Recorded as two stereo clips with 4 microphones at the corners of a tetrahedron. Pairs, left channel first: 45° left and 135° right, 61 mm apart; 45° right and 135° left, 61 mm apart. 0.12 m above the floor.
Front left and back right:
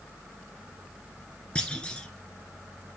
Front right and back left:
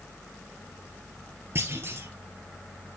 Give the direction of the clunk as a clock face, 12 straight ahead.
8 o'clock.